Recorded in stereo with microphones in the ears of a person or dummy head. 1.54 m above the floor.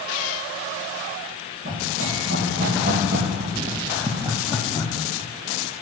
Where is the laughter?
60° right (ahead or behind), 2.5 m; by 4.9 s 25° left (ahead or behind), 0.8 m.